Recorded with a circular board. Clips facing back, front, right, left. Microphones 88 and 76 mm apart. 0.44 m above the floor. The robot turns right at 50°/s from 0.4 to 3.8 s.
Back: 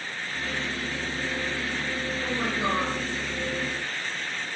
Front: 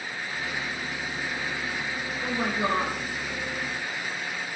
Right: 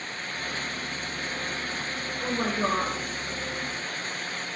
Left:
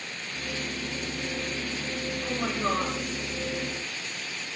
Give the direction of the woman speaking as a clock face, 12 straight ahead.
3 o'clock.